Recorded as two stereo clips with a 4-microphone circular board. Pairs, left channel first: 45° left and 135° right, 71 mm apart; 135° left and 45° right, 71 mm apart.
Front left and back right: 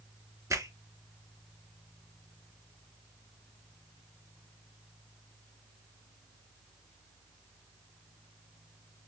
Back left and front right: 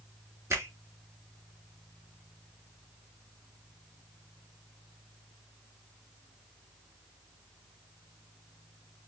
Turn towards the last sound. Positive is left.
turn(degrees=-95)